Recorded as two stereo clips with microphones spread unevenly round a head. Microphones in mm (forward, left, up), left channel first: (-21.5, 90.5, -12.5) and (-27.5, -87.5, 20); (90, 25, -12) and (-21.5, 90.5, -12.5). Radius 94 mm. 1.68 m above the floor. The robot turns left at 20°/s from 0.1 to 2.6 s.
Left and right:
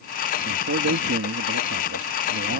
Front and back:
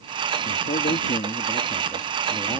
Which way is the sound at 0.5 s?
65° right.